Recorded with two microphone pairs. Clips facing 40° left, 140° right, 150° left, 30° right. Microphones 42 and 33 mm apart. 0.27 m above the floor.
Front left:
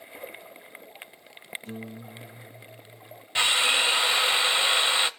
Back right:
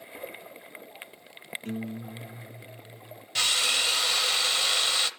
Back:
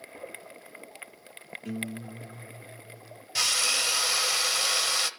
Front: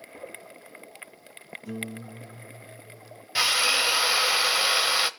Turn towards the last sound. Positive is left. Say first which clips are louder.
# front left 4 dB, front 4 dB
turn(degrees=5)